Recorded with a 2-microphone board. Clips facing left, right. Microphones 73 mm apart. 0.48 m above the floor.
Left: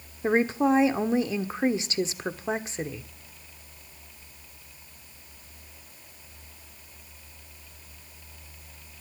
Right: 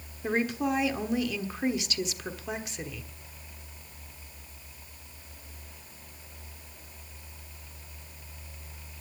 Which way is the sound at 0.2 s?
35° left (ahead or behind).